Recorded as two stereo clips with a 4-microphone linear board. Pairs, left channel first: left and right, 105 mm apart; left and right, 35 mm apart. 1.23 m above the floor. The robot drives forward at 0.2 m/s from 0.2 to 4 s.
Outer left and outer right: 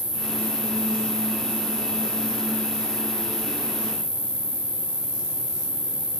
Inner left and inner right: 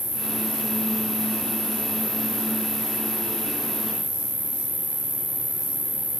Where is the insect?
75° right (ahead or behind), 9.5 m; by 6.2 s 70° right (ahead or behind), 9.5 m.